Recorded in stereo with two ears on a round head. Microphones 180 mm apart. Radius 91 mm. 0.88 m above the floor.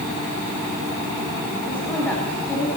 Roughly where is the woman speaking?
Centre.